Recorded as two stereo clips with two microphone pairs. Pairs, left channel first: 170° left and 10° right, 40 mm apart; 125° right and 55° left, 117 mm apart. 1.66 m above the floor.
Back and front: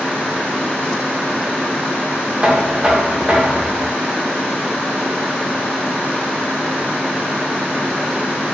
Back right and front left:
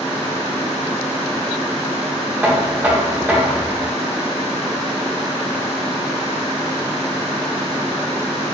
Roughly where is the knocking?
Ahead.